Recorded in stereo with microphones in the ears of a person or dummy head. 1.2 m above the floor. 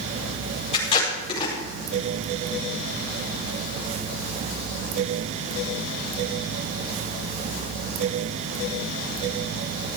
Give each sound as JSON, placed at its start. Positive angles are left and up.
{"t": 0.7, "sound": "tape being pulled", "side_deg": 25, "distance_m": 4.5}